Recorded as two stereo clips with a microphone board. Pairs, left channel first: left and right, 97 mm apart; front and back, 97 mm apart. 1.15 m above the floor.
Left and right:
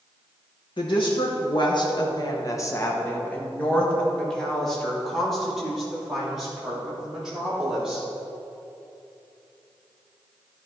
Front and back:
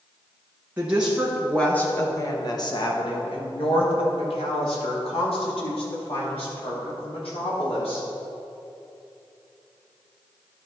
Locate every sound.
0.8 s a woman speaking: 110° left, 1.2 m; by 8.1 s 5° right, 4.5 m